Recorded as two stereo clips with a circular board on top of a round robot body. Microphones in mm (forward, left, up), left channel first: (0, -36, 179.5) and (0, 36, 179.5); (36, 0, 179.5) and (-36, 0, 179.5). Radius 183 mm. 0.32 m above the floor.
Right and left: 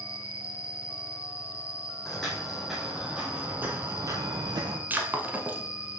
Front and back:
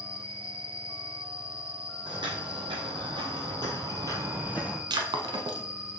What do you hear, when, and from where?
0.0 s an insect: 50° right, 1.3 m
2.0 s footsteps: 175° right, 1.3 m; by 4.8 s 100° left, 0.7 m
4.9 s breaking glass: 155° left, 0.7 m